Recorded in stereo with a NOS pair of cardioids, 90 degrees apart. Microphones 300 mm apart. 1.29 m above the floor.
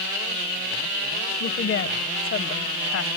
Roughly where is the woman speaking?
Ahead left.